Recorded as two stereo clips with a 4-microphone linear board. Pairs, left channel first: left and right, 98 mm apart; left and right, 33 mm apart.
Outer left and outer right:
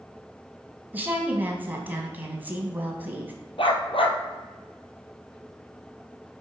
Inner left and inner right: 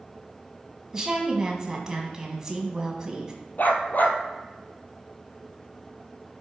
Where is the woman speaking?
20° right (ahead or behind), 1.4 m.